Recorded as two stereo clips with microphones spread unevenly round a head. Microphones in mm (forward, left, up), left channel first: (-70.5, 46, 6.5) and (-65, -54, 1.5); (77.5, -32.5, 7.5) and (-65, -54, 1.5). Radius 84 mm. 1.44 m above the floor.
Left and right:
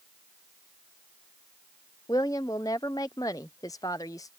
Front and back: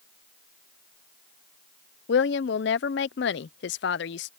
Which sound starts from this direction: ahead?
A woman speaking, at 2.1 s.